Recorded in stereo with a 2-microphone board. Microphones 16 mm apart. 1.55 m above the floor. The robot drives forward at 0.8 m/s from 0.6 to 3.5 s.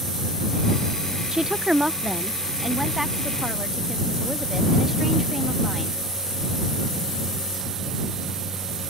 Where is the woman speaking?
45° right (ahead or behind); by 6.0 s 10° right (ahead or behind).